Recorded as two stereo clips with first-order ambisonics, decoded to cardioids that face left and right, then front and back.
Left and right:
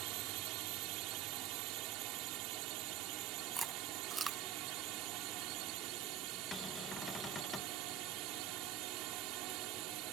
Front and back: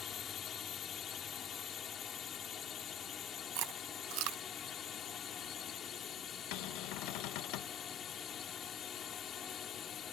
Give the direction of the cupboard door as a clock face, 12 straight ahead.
12 o'clock.